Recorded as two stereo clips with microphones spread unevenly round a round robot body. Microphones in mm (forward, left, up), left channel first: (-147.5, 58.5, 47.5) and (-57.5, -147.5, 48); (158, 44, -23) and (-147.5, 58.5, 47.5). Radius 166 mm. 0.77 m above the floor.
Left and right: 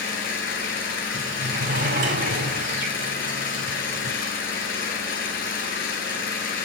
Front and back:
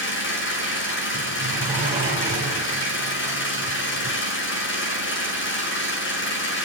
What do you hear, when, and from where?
0.0 s an engine running: 50° left, 6 m
1.1 s a sliding door: 105° right, 8 m